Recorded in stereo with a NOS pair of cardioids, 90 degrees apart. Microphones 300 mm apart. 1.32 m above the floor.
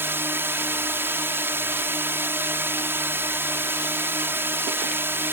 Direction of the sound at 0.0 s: 5° right.